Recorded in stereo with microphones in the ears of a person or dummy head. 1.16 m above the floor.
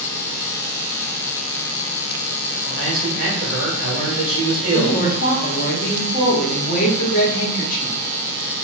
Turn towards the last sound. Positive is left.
turn(degrees=45)  # may be behind; listen again after turning